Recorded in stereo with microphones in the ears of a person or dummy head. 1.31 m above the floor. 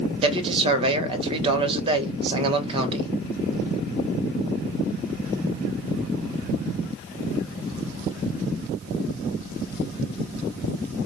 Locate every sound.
0.2 s a man speaking: 30° right (ahead or behind), 1.1 m